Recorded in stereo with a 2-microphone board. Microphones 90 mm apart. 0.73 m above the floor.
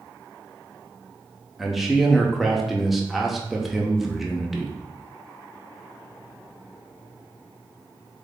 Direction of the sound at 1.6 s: 5° right (ahead or behind).